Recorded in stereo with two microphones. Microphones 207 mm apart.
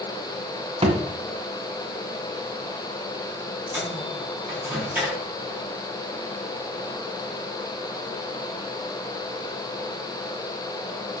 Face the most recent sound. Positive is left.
turn(degrees=-5)  # may be behind; listen again after turning